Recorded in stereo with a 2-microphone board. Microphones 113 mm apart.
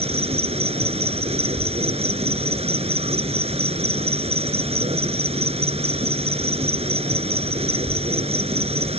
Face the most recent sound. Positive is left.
turn(degrees=-65)  # may be behind; listen again after turning